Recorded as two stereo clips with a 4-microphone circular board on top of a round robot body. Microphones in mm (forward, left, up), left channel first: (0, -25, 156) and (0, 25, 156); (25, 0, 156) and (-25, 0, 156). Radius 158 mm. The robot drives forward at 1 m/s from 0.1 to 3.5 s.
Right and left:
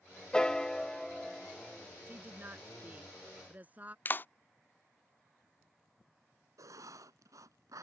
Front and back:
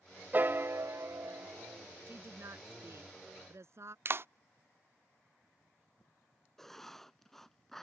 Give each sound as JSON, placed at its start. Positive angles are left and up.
{"t": 0.3, "sound": "a piano", "azimuth_deg": -155}
{"t": 2.1, "sound": "a woman speaking", "azimuth_deg": 145}
{"t": 4.0, "sound": "a clap", "azimuth_deg": -140}
{"t": 6.6, "sound": "writing", "azimuth_deg": 85}